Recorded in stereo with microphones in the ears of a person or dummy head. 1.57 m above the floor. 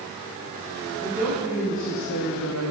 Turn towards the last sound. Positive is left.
turn(degrees=70)  # may be behind; listen again after turning